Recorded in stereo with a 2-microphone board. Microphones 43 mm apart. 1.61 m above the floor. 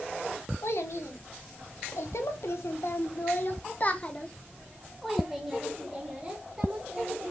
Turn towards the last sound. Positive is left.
turn(degrees=-25)  # may be behind; listen again after turning